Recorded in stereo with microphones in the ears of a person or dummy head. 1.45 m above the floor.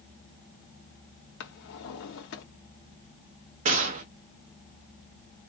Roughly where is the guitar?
I don't hear a guitar.